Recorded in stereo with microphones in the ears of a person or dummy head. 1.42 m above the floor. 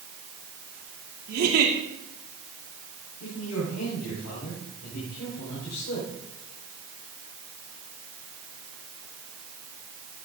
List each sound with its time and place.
1.3 s a giggle: 55° right (ahead or behind), 2.5 m
3.2 s a man speaking: 85° left, 5.5 m